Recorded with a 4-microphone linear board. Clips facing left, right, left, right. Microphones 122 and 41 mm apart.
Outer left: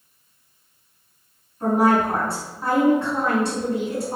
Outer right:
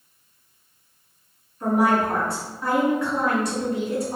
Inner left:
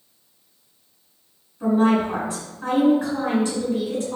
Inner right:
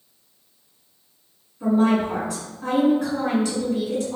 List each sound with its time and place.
1.6 s a woman speaking: 30° left (ahead or behind), 1.8 m